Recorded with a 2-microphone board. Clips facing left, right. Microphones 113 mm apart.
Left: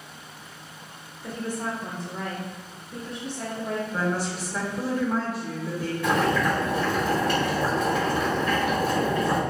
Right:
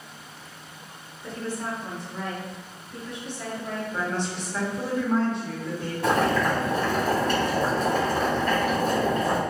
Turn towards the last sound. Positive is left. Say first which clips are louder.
# right 1 dB
turn(degrees=-40)  # may be behind; listen again after turning